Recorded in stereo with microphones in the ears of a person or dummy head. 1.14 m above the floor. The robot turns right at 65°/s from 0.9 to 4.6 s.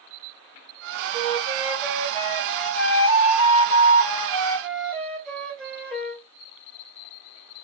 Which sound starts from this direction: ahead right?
A flute, at 1.1 s.